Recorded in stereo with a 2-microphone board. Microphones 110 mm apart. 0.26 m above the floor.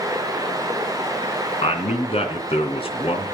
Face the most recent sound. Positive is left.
turn(degrees=60)  # may be behind; listen again after turning